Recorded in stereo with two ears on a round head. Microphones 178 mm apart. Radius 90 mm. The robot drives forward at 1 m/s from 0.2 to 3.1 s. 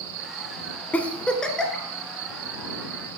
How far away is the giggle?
About 0.6 m.